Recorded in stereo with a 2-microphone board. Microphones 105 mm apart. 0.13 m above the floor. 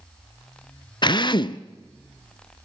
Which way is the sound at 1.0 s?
45° left (ahead or behind).